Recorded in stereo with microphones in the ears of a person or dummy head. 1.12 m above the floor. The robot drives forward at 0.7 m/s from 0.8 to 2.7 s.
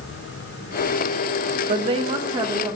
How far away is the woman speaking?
About 0.8 m.